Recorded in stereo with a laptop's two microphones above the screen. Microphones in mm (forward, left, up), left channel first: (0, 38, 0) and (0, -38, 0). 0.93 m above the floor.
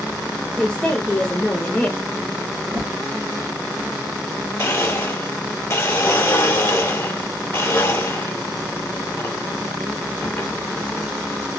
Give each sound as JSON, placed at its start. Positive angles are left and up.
{"t": 0.6, "sound": "a woman speaking", "side_deg": 10, "distance_m": 0.7}
{"t": 2.7, "sound": "a whoosh", "side_deg": -45, "distance_m": 1.4}
{"t": 4.6, "sound": "a blender", "side_deg": 35, "distance_m": 1.1}